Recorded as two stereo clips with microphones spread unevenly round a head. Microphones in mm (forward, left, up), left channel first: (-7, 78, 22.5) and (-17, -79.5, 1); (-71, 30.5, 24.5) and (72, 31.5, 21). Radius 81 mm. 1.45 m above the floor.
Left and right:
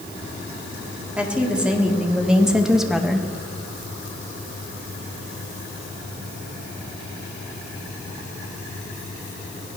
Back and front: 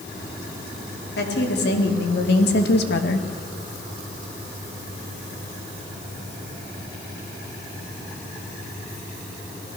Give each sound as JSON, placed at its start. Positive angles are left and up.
{"t": 1.2, "sound": "a woman speaking", "azimuth_deg": 180, "distance_m": 3.5}